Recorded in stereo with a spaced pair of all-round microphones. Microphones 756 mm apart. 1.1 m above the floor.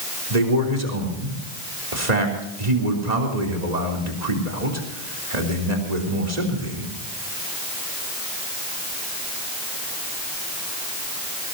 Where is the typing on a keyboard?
I don't hear typing on a keyboard.